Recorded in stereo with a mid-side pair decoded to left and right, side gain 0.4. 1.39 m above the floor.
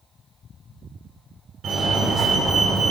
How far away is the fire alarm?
About 7 m.